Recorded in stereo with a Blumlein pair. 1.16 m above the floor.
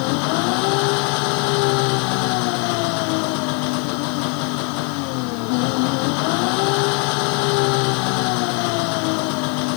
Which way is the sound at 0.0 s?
45° left.